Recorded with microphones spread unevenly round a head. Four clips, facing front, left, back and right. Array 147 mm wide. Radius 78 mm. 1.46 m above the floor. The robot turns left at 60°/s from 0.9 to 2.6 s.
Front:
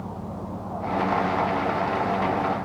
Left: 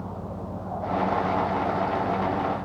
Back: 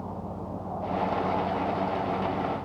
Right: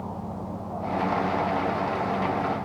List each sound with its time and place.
Only background noise.